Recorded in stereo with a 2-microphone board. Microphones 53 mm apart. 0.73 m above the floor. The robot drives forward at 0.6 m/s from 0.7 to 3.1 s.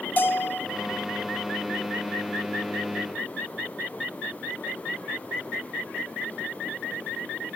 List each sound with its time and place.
0.2 s a bell: 35° left (ahead or behind), 0.5 m